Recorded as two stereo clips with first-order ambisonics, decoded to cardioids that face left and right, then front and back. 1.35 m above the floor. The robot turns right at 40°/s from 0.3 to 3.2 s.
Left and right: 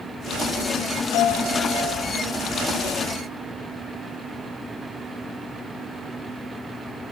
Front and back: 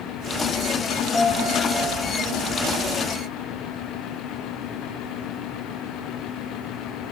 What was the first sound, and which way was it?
A piano, 70° left.